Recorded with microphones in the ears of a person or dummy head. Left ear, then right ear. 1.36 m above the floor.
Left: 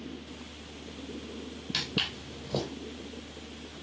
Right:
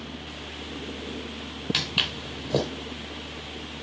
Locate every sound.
1.7 s footsteps: 5° right (ahead or behind), 2.5 m